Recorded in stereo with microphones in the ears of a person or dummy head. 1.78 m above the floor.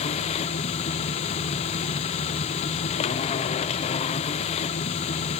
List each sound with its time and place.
0.0 s a machine running: 35° left (ahead or behind), 0.8 m